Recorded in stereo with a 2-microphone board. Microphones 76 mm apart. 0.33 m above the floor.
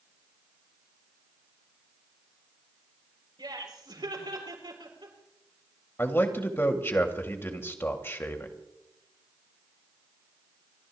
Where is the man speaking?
30° left (ahead or behind), 1.7 m.